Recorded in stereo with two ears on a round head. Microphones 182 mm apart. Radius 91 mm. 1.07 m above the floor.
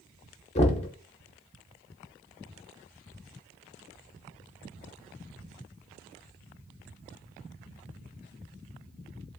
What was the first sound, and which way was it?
Knocking, 30° left (ahead or behind).